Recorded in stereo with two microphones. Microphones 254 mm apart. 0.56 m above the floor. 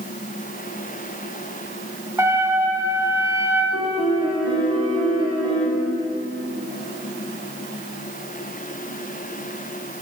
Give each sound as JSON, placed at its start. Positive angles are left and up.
{"t": 2.2, "sound": "a trumpet", "side_deg": -10, "distance_m": 1.5}
{"t": 3.7, "sound": "a piano", "side_deg": -20, "distance_m": 1.9}